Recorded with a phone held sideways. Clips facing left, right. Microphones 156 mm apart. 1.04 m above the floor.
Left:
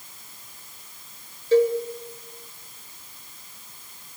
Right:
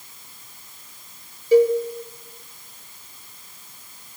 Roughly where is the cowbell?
Centre.